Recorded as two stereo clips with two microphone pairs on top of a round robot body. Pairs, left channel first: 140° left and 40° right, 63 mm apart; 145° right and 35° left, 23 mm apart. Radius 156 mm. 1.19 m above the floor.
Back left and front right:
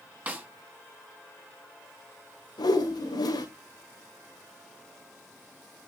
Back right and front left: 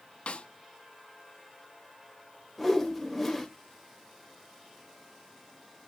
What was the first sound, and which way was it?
A snare drum, 110° right.